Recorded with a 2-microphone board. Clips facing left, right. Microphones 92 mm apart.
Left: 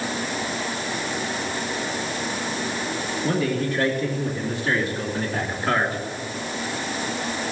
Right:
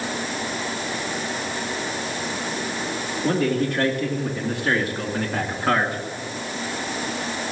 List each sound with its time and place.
3.2 s a man speaking: 65° right (ahead or behind), 3.5 m; by 6.0 s 55° right (ahead or behind), 2 m